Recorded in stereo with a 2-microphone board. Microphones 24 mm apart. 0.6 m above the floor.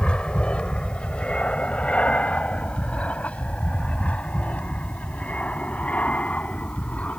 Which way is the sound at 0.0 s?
45° left (ahead or behind).